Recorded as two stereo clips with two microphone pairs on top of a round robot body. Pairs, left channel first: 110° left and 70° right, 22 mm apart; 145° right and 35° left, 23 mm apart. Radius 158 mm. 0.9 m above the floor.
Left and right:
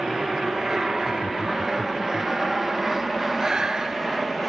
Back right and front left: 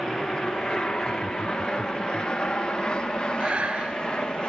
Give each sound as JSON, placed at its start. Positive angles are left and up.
{"t": 0.0, "sound": "an aircraft", "azimuth_deg": -125}
{"t": 1.0, "sound": "laughter", "azimuth_deg": 130}
{"t": 3.4, "sound": "breathing", "azimuth_deg": -5}